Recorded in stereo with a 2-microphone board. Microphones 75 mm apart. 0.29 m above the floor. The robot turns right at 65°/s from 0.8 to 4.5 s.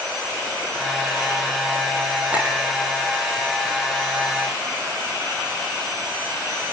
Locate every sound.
2.3 s a clink: 20° right (ahead or behind), 8 m; by 2.5 s 5° right (ahead or behind), 8 m